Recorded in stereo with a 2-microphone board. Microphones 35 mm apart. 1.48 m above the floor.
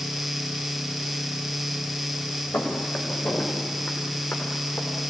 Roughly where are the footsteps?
Left.